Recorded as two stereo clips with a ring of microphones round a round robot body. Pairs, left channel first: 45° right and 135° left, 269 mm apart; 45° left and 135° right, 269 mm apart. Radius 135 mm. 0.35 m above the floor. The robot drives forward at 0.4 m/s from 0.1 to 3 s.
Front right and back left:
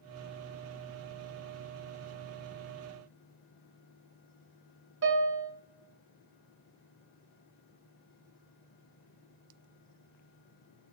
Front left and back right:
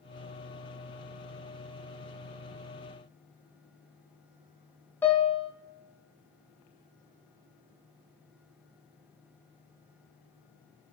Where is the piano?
125° left, 0.7 m.